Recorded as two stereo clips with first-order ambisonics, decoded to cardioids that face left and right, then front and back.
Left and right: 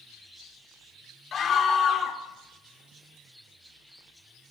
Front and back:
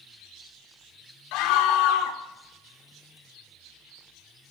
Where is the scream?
25° left, 2.5 m.